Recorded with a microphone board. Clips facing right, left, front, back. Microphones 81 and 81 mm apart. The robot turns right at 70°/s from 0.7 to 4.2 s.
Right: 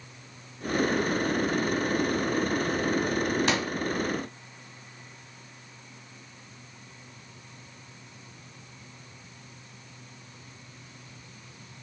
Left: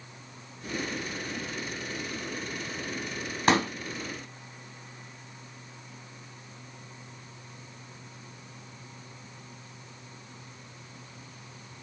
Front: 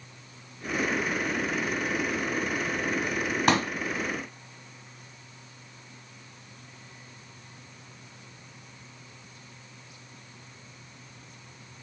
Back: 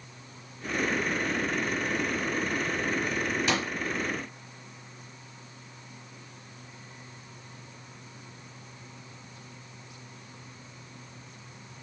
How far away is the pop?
About 1.2 m.